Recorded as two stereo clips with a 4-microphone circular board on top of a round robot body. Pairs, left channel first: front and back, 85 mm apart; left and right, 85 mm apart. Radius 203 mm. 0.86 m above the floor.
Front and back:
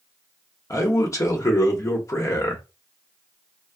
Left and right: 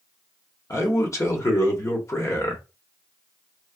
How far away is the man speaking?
About 1.3 m.